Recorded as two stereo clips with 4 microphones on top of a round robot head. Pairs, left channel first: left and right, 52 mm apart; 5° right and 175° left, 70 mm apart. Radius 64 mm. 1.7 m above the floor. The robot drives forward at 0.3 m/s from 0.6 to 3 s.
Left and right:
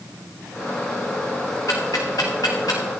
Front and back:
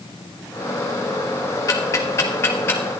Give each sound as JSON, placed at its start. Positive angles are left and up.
{"t": 1.7, "sound": "ticking", "azimuth_deg": 35, "distance_m": 1.4}